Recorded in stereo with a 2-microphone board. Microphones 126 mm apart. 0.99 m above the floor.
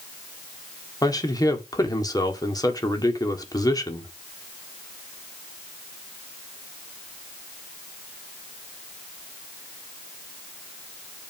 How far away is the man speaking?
About 1.9 m.